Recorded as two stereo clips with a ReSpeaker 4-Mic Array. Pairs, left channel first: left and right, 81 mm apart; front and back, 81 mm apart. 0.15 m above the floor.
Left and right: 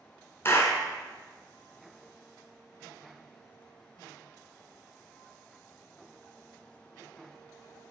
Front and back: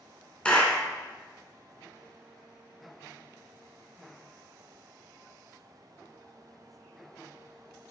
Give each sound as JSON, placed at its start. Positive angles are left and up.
{"t": 0.5, "sound": "a clap", "azimuth_deg": 65, "distance_m": 1.1}